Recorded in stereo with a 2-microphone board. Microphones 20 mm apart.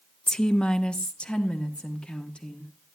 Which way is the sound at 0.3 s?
35° left (ahead or behind).